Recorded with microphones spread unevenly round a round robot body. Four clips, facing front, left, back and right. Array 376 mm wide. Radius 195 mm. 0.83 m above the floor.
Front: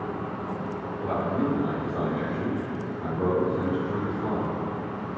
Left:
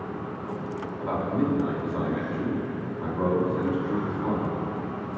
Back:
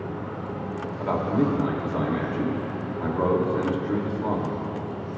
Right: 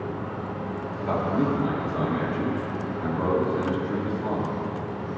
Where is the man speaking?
Straight behind, 3.5 m.